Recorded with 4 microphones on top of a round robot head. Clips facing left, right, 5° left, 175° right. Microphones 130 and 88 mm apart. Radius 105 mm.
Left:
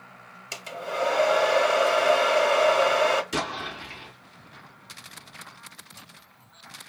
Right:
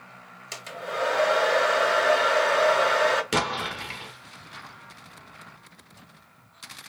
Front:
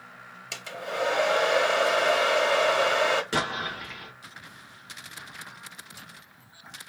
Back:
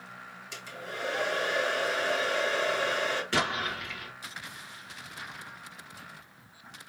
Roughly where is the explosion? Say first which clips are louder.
Right 3 dB, front 1 dB; right.